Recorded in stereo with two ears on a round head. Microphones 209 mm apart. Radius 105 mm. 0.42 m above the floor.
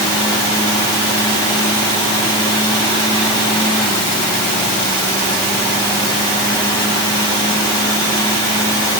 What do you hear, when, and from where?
Only background noise.